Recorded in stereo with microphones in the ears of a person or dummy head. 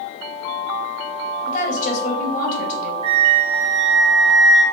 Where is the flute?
30° right (ahead or behind), 1.2 m.